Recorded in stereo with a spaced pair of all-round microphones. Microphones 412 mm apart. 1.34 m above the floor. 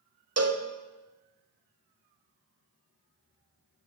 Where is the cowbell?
40° right (ahead or behind), 0.5 m.